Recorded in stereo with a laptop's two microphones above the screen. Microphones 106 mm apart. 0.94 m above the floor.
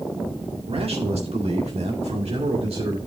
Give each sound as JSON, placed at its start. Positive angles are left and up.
{"t": 0.7, "sound": "a man speaking", "side_deg": -70, "distance_m": 1.8}